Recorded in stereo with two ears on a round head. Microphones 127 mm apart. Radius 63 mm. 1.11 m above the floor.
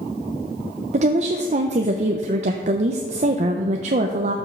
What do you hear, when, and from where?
0.9 s a woman speaking: 55° right (ahead or behind), 0.6 m